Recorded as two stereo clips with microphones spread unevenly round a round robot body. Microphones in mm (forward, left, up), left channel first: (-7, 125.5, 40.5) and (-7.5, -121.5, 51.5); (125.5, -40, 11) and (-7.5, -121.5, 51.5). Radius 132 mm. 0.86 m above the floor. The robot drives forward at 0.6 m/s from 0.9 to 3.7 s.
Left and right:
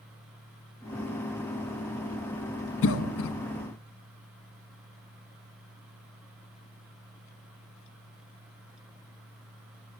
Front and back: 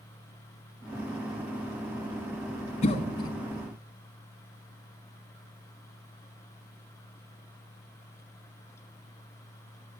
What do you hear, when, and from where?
2.8 s a cough: 65° left, 0.8 m; by 3.4 s 90° left, 0.8 m